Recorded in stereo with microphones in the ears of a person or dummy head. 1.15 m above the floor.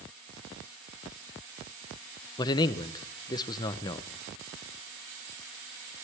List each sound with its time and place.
2.4 s a man speaking: 25° left (ahead or behind), 0.6 m